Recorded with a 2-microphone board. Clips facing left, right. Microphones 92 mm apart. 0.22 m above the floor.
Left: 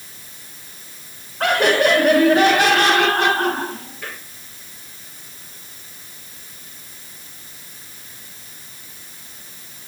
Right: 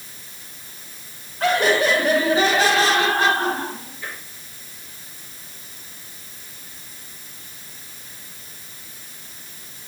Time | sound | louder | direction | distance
1.4 | laughter | left 2 dB | 60° left (ahead or behind) | 4 m